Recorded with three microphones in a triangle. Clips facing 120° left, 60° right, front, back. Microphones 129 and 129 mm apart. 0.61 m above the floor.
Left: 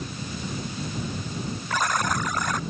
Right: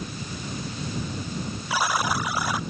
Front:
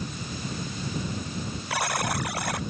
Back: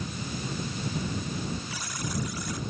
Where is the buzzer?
20° left.